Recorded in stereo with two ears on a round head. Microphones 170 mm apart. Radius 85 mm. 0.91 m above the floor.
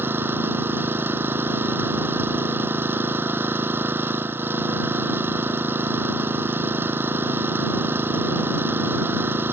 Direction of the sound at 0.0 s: 10° right (ahead or behind).